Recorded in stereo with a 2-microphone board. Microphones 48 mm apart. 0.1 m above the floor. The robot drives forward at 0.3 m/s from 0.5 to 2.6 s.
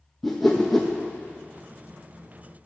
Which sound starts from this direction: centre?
A whoosh, at 0.2 s.